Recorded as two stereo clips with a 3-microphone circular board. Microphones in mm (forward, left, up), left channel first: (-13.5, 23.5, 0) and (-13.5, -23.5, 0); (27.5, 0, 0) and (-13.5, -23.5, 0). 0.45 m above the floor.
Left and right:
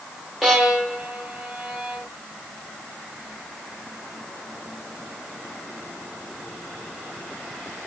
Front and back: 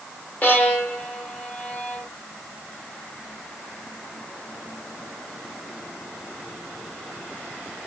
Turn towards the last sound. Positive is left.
turn(degrees=-10)